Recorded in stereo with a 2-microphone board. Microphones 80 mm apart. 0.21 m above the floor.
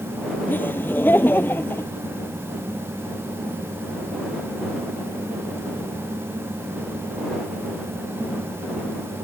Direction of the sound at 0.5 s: 25° left (ahead or behind).